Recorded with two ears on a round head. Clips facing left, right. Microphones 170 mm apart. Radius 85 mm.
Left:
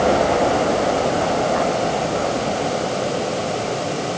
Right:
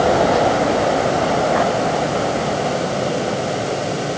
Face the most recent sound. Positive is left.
No sound to turn to.